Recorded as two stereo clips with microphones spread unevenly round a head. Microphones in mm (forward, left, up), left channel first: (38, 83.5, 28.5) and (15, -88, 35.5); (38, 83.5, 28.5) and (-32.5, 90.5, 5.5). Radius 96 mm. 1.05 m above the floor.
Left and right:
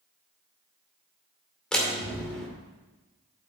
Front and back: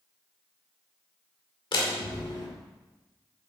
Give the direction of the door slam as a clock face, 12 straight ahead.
12 o'clock.